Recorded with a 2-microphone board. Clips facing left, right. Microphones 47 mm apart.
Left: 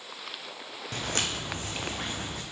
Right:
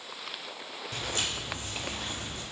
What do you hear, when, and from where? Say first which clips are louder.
0.9 s footsteps: left 2 dB; 50° left (ahead or behind), 0.8 m; by 2.4 s 85° left, 1.5 m